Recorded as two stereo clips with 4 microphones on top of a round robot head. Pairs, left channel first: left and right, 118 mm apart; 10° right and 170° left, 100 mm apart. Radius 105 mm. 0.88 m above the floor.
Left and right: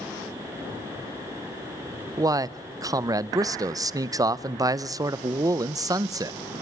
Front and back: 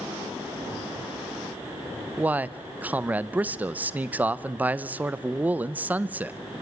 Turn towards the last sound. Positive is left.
turn(degrees=-130)